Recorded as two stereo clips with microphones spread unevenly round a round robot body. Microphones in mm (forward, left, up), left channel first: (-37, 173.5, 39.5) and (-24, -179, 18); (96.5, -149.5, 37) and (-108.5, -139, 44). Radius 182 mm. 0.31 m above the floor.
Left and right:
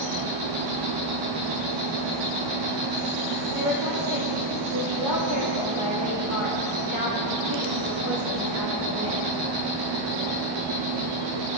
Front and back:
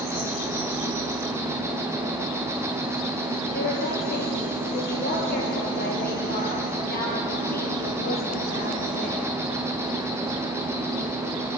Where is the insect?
105° right, 3 m.